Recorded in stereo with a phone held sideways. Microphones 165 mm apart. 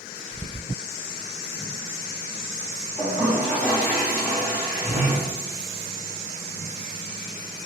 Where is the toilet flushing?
20° left (ahead or behind), 1.9 m.